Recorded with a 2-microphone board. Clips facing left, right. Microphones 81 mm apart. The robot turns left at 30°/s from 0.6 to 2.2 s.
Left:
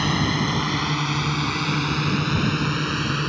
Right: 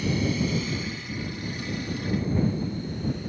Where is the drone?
65° left (ahead or behind); by 3.3 s 80° left.